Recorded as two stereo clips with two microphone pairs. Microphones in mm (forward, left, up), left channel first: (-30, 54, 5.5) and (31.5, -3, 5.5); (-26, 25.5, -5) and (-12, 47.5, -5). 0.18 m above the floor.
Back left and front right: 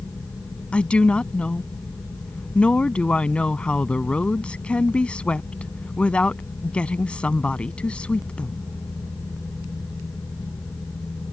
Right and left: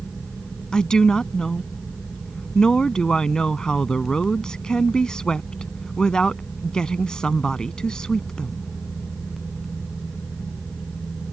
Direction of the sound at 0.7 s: 160° right.